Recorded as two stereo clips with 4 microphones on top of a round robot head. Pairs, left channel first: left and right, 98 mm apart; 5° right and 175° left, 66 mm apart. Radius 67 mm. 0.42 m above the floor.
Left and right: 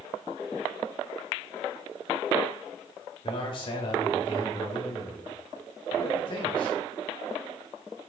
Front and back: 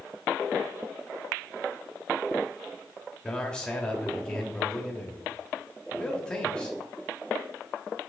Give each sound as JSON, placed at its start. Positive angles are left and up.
{"t": 3.2, "sound": "a man speaking", "azimuth_deg": 70, "distance_m": 1.3}